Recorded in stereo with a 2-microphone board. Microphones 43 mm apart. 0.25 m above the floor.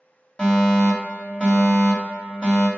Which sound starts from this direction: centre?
A fire alarm, at 0.4 s.